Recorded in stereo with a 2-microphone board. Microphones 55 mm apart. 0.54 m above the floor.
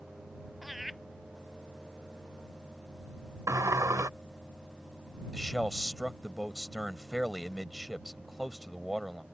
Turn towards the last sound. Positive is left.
turn(degrees=0)  # may be behind; listen again after turning